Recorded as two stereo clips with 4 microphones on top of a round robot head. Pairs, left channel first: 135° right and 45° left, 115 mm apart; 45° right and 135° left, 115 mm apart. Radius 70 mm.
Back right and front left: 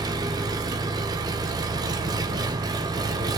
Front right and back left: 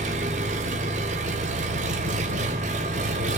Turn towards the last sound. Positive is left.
turn(degrees=105)